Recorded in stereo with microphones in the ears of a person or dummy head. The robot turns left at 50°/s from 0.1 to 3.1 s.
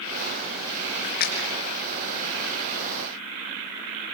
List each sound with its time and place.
1.0 s a splash: 50° left (ahead or behind), 4 m; by 1.5 s 70° left (ahead or behind), 4 m